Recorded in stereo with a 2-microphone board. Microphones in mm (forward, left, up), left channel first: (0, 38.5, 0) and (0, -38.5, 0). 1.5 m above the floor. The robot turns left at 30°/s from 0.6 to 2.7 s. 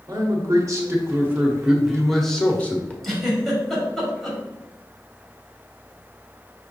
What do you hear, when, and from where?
0.1 s a man speaking: 135° right, 1.1 m; by 2.9 s 160° left, 1.1 m
3.0 s a giggle: 5° left (ahead or behind), 1.7 m